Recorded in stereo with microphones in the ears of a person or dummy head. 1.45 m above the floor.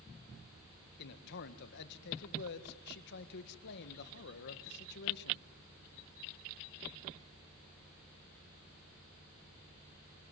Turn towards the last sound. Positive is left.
turn(degrees=60)  # may be behind; listen again after turning